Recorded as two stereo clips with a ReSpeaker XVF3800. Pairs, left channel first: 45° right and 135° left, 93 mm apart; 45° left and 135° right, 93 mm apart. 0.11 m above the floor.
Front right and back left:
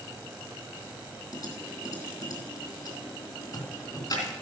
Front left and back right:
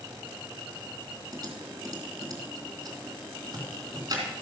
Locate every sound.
1.3 s typing on a keyboard: 90° right, 3.5 m